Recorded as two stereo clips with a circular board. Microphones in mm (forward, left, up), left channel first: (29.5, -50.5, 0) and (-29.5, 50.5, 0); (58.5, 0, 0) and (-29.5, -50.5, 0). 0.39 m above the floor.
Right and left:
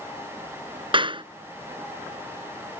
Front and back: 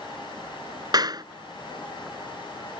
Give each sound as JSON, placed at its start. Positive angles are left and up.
{"t": 0.9, "sound": "a clap", "azimuth_deg": 165}